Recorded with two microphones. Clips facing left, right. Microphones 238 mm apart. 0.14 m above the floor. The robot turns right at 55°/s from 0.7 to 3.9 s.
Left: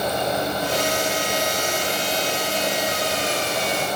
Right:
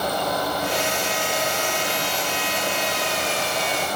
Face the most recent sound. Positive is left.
No sound to turn to.